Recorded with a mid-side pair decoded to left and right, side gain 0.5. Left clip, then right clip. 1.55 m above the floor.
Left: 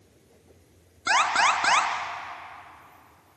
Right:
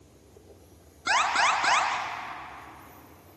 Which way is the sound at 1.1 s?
20° left.